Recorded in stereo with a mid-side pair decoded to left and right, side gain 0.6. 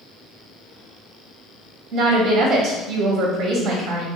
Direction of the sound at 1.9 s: 60° right.